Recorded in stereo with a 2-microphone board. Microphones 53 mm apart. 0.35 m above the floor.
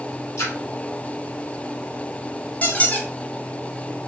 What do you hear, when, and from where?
0.4 s a splash: 65° left (ahead or behind), 1.9 m
2.6 s a squeak: 30° left (ahead or behind), 0.7 m